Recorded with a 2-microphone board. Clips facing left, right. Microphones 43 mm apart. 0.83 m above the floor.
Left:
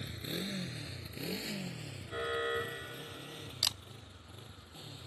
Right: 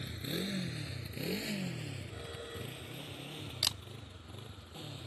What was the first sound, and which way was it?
A motorcycle, centre (ahead or behind).